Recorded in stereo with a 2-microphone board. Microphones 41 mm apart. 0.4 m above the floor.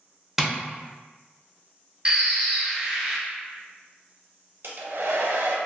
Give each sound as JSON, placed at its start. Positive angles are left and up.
{"t": 0.4, "sound": "tapping", "side_deg": -5, "distance_m": 0.5}
{"t": 2.0, "sound": "a bird", "side_deg": -15, "distance_m": 0.7}
{"t": 4.6, "sound": "a hair dryer", "side_deg": -75, "distance_m": 0.5}